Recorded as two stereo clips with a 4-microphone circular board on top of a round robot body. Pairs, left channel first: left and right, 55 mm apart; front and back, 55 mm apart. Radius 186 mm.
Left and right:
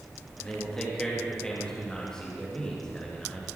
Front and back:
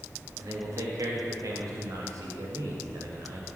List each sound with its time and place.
0.4 s a man speaking: 170° left, 2.5 m